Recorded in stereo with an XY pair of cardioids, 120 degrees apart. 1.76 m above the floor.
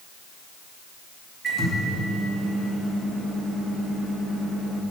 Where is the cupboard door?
No cupboard door in this recording.